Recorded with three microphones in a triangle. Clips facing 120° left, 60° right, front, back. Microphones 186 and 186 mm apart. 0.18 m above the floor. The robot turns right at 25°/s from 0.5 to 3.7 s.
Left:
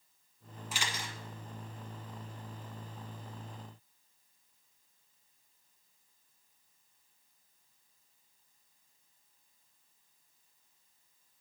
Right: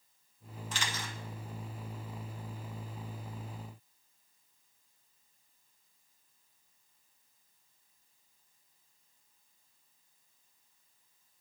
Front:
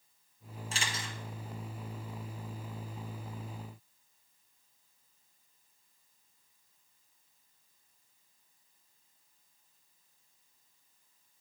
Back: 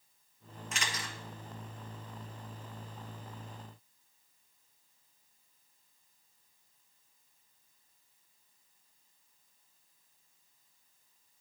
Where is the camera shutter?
40° left, 1.5 m; by 1.1 s 55° left, 1.5 m.